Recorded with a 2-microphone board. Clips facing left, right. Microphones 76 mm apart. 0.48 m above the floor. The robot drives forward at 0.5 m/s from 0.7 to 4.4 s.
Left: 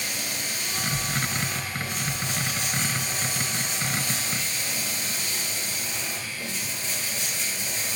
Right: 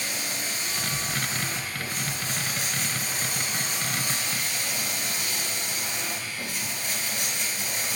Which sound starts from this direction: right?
Running water, at 0.0 s.